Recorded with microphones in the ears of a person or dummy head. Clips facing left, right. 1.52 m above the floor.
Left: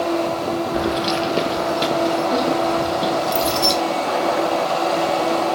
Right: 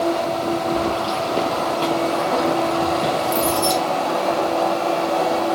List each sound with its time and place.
0.7 s keys jangling: 25° left (ahead or behind), 0.7 m; by 3.7 s 15° left (ahead or behind), 2.5 m